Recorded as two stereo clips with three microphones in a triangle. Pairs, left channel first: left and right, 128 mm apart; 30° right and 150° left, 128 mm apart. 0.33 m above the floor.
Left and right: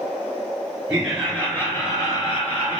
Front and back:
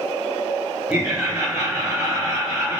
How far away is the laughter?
About 1.0 m.